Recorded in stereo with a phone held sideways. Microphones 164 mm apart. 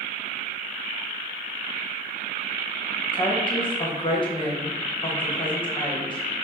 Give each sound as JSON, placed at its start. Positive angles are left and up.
{"t": 3.1, "sound": "a woman speaking", "side_deg": 30, "distance_m": 1.0}